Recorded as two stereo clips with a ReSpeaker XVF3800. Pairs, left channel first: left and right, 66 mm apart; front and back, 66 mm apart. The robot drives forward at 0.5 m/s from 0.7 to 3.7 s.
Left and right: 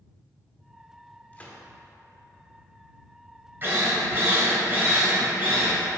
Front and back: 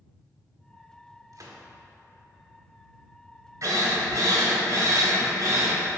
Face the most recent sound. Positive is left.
turn(degrees=-145)